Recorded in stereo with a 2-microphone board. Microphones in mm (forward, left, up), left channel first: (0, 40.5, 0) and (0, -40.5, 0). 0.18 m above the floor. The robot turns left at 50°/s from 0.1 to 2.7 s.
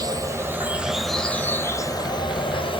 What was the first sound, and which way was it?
An insect, 135° right.